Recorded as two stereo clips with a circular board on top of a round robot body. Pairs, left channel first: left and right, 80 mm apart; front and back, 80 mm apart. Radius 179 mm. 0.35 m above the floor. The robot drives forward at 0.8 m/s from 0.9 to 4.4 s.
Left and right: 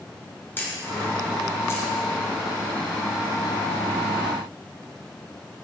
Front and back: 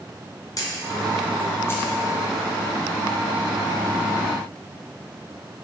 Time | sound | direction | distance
0.6 | a camera shutter | 30° left | 2 m